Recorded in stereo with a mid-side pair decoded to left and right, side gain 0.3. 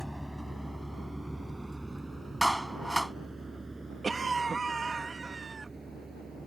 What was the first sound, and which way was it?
A vehicle, 5° right.